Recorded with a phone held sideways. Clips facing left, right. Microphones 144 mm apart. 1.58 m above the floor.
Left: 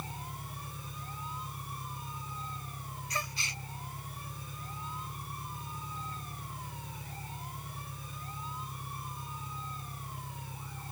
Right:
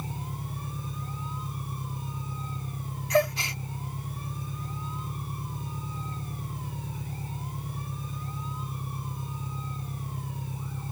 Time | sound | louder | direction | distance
0.0 | an engine running | right 6 dB | 30° right (ahead or behind) | ?
3.1 | a gasp | right 18 dB | 85° right | ?